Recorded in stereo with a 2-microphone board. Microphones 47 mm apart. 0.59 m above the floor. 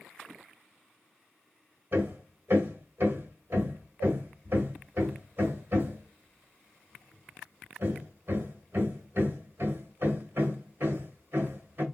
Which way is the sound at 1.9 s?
50° right (ahead or behind).